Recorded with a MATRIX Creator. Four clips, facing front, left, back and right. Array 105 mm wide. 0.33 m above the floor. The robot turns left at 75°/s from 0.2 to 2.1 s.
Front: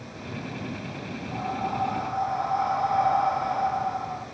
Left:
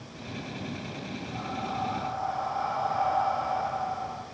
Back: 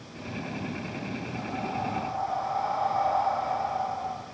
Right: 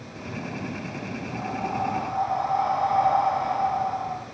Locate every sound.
1.3 s breathing: 25° right, 3 m; by 4.2 s 85° right, 3 m